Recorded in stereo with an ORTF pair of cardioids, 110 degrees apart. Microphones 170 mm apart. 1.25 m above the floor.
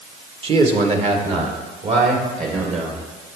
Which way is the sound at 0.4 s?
35° right.